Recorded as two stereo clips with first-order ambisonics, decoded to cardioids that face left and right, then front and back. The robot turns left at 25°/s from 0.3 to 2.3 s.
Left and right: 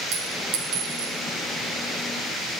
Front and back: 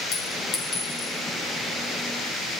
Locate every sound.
0.1 s a clink: 55° right, 3.5 m; by 1.1 s 75° right, 3.5 m